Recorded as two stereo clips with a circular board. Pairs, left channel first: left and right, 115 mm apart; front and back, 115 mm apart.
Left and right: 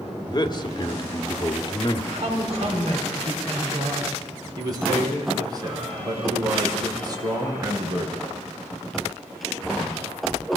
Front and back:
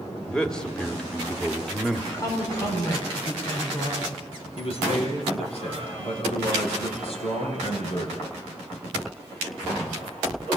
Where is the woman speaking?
55° right, 4.5 m.